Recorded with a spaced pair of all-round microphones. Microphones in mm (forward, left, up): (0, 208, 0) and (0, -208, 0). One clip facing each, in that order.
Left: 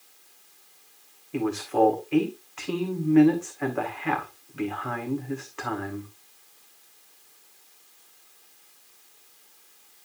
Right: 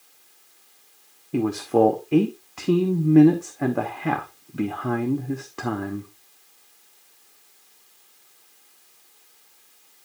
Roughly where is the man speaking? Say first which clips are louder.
Right 5 dB; right.